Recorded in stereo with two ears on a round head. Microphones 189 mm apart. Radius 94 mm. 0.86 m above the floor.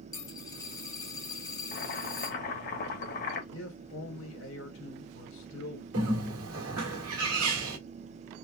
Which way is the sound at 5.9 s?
75° right (ahead or behind).